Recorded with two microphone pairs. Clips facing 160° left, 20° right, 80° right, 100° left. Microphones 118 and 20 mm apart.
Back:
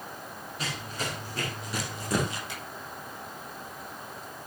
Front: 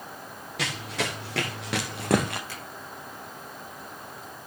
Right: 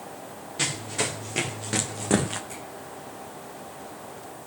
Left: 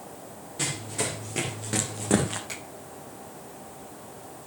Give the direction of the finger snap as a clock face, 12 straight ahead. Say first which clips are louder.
Even, left 1 dB; 9 o'clock.